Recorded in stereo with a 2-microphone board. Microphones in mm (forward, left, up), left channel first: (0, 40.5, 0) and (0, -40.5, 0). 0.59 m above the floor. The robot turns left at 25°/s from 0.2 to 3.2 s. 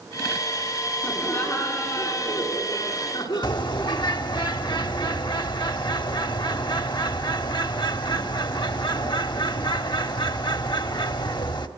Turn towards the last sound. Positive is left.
turn(degrees=75)  # may be behind; listen again after turning